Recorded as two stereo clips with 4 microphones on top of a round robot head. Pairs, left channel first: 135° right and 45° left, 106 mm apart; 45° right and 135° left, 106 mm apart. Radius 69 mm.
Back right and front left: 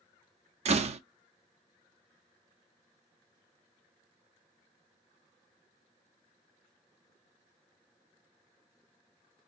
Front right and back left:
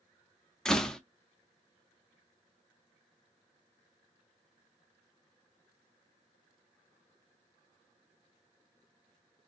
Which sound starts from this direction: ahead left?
A door slam, at 0.7 s.